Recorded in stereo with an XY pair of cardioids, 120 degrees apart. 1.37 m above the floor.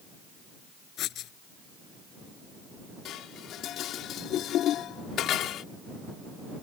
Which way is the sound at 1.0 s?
65° left.